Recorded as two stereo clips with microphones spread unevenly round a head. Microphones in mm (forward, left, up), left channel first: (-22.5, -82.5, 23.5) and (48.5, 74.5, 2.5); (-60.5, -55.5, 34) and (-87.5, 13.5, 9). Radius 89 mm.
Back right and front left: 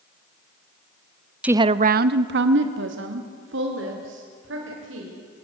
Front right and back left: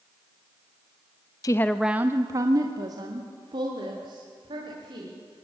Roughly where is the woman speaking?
Ahead.